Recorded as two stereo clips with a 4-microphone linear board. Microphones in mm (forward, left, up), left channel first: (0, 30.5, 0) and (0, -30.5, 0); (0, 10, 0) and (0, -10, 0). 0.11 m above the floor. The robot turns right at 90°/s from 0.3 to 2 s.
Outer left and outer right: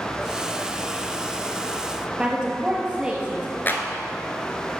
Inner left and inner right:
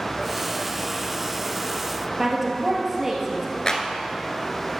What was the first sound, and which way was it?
A woman speaking, 15° right (ahead or behind).